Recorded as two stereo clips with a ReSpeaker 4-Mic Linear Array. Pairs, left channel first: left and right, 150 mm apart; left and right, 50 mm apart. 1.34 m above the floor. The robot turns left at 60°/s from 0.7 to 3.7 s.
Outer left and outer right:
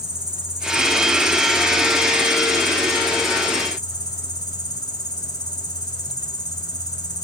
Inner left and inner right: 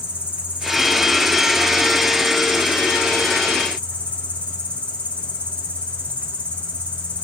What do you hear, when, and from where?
0.0 s an insect: 25° right, 2 m; by 7.2 s 155° left, 2 m